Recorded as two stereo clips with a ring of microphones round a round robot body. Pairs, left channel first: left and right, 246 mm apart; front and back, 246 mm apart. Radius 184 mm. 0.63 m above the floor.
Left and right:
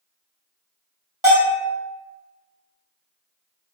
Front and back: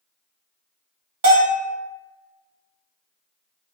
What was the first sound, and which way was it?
A bell, 160° right.